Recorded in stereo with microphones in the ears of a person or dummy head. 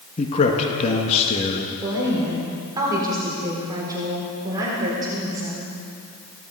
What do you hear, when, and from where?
0.2 s a man speaking: 30° left (ahead or behind), 1.5 m
1.8 s a woman speaking: 25° right (ahead or behind), 3.5 m